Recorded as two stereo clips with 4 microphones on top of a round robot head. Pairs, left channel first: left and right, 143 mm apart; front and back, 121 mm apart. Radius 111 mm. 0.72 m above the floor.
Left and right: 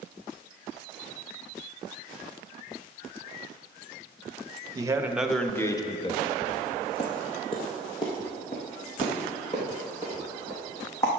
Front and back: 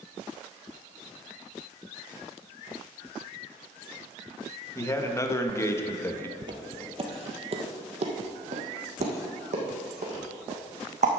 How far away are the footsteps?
About 1.0 m.